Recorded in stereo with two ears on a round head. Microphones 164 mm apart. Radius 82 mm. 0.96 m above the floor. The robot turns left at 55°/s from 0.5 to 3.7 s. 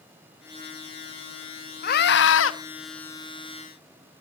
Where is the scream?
130° left, 1.1 m; by 2.5 s 90° left, 1.1 m.